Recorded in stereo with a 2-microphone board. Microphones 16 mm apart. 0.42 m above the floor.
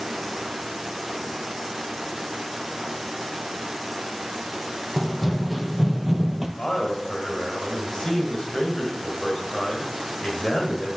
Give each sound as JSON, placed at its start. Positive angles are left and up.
{"t": 5.0, "sound": "running footsteps", "side_deg": 5, "distance_m": 1.1}
{"t": 6.6, "sound": "a man speaking", "side_deg": 50, "distance_m": 2.0}